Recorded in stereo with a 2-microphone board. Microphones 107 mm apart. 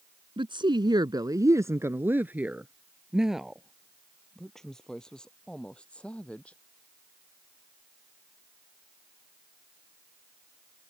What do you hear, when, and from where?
0.4 s a woman speaking: 55° right (ahead or behind); by 6.6 s 10° left (ahead or behind)